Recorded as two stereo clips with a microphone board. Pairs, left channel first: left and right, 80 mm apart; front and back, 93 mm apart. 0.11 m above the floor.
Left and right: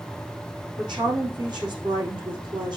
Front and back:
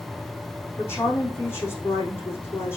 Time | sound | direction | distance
0.8 | a woman speaking | 65° right | 4.5 m